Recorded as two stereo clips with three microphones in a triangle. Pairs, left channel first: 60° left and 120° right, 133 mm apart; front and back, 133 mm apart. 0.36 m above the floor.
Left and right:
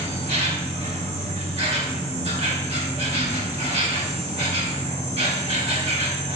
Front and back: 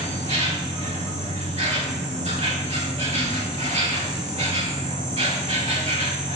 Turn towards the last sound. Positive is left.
turn(degrees=-150)